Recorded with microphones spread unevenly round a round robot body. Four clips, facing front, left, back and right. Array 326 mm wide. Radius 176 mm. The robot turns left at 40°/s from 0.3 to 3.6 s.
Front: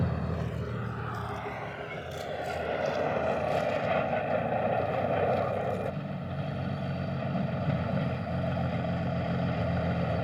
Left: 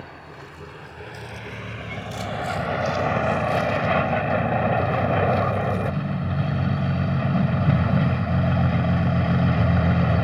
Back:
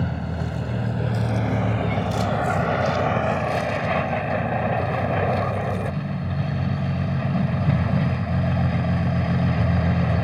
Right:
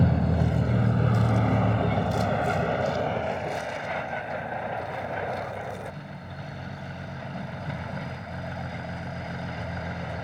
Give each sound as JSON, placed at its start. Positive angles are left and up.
{"t": 0.0, "sound": "a vehicle", "azimuth_deg": -95}